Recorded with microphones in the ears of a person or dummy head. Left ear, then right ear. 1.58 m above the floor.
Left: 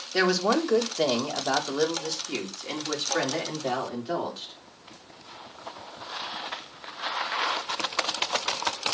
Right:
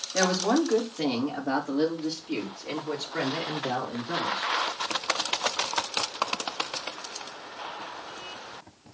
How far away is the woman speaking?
About 2.5 m.